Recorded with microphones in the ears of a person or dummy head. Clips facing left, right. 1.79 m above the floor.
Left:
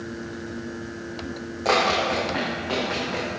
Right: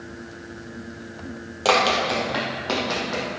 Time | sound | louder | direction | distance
1.6 | running footsteps | right 1 dB | 55° right (ahead or behind) | 3.5 m